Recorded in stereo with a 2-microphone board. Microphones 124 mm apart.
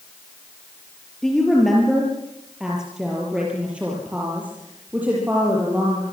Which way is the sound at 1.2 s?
Centre (ahead or behind).